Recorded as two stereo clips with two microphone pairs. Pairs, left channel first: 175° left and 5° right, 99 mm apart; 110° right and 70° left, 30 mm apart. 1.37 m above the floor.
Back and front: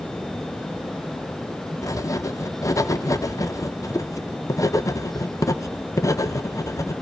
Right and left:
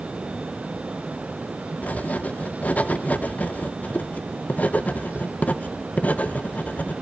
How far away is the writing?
About 0.8 m.